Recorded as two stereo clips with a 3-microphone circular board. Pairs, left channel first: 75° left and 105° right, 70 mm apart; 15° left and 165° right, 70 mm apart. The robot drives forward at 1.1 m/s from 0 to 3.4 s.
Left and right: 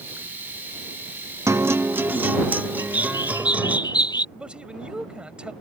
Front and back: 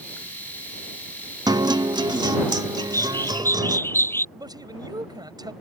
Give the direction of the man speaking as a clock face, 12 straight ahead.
6 o'clock.